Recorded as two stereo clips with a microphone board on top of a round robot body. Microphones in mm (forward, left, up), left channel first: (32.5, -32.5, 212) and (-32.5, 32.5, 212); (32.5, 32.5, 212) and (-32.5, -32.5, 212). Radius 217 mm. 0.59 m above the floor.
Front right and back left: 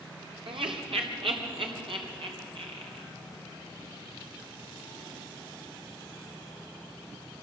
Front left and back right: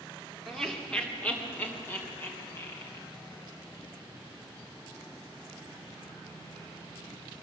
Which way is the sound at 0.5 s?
135° left.